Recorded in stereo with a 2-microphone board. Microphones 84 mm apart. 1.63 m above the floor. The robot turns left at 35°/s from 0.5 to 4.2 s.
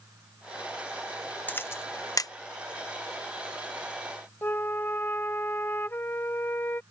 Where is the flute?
25° left (ahead or behind).